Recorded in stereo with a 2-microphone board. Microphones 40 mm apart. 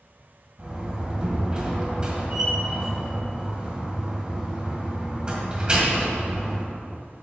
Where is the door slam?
25° right (ahead or behind), 1.8 m.